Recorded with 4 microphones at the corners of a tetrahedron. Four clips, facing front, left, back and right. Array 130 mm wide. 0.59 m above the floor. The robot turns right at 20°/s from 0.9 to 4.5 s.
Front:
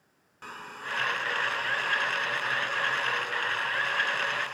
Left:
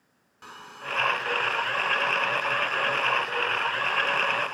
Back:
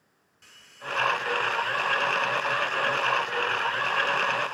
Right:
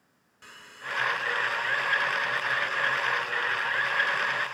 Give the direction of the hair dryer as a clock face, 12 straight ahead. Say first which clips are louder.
Left 3 dB, front 1 dB; 11 o'clock.